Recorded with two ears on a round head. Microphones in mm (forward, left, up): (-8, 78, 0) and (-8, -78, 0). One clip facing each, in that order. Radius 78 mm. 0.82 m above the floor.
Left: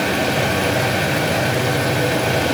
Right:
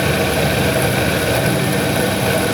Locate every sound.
Only background noise.